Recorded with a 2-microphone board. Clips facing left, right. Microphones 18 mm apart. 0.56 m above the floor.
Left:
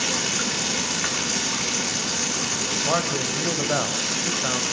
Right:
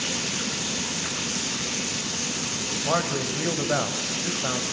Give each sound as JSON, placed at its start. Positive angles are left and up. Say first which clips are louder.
{"t": 0.0, "sound": "running water", "louder": "left 4 dB", "side_deg": 90, "distance_m": 6.5}
{"t": 2.8, "sound": "a man speaking", "louder": "even", "side_deg": 5, "distance_m": 3.0}